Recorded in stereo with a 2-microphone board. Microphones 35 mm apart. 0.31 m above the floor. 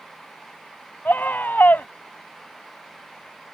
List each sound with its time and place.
1.1 s a scream: 60° left (ahead or behind)